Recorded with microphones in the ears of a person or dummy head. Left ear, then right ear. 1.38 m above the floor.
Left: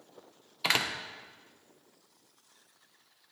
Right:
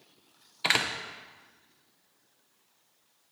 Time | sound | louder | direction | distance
0.6 | a door slam | right 2 dB | 5° left (ahead or behind) | 0.5 m